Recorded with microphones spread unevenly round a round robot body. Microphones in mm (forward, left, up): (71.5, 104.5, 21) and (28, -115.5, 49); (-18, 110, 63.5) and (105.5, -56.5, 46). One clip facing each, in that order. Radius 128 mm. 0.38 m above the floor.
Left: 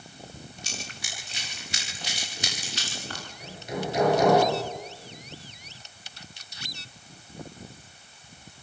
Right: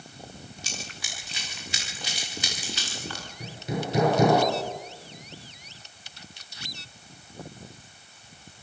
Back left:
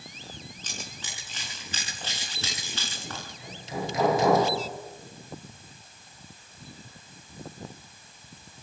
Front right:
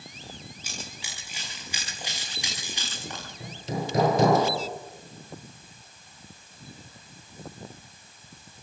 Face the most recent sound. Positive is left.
turn(degrees=-110)